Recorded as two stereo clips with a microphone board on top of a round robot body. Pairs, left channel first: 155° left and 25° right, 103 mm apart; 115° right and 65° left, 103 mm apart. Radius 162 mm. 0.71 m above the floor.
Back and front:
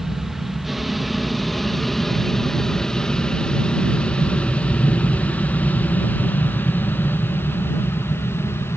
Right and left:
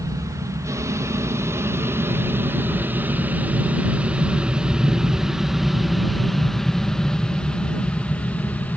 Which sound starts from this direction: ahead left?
An aircraft, at 0.0 s.